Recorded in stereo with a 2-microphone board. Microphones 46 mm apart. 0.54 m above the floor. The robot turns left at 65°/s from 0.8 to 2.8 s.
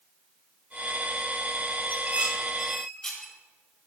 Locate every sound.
1.9 s dishes clattering: 45° right (ahead or behind), 1.6 m; by 3.3 s 10° left (ahead or behind), 1.6 m